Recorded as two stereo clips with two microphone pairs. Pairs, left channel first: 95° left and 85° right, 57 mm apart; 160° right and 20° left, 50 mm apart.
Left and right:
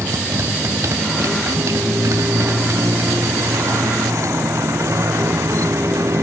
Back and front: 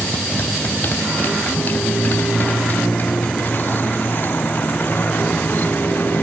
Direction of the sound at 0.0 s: 110° right.